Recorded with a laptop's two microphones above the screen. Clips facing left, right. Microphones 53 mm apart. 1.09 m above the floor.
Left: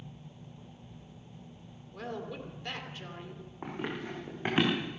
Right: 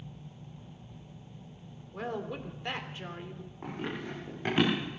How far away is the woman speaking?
About 2.5 m.